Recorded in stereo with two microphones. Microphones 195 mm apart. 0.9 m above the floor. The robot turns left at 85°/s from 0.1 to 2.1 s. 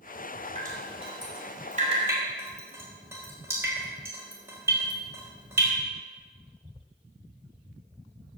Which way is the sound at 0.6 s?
35° right (ahead or behind).